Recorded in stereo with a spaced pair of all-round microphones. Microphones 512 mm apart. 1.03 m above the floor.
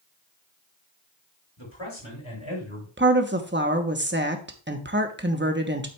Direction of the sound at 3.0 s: 20° right (ahead or behind).